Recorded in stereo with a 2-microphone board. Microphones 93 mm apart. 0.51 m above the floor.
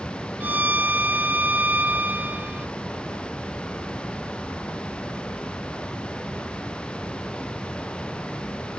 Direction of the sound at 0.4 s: 20° right (ahead or behind).